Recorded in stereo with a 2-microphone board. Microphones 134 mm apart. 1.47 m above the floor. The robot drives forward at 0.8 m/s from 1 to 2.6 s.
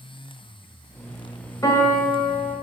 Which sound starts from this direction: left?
A piano, at 1.6 s.